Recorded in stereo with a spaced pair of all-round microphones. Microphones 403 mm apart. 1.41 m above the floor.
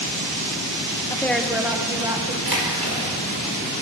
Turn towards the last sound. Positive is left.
turn(degrees=-65)  # may be behind; listen again after turning